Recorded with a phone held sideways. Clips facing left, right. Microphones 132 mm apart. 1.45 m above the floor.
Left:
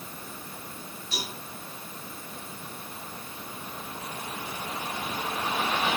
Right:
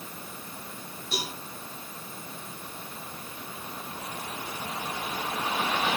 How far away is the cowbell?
About 6.5 m.